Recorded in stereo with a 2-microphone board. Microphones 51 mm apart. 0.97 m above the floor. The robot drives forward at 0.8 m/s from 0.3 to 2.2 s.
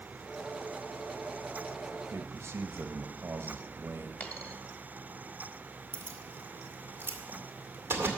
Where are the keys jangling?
45° right (ahead or behind), 2 m.